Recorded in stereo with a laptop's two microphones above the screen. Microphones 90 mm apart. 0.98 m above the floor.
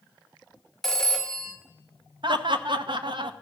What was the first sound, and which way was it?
A phone ringing, 5° left (ahead or behind).